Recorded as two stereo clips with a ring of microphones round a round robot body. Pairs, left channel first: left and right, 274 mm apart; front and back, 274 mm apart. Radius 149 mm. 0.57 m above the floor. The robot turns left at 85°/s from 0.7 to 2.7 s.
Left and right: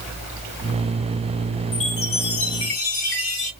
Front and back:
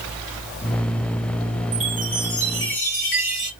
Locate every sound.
1.7 s a chime: 120° left, 1.9 m; by 3.5 s 35° left, 1.9 m